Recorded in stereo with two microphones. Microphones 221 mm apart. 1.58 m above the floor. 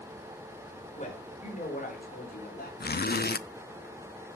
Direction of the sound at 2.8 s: 45° left (ahead or behind).